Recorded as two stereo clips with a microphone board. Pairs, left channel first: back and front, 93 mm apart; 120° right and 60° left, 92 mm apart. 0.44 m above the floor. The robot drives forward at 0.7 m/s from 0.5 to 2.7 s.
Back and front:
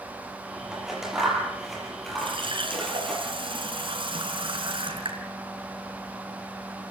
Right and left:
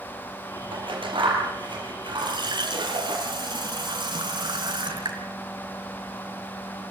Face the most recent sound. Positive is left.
turn(degrees=25)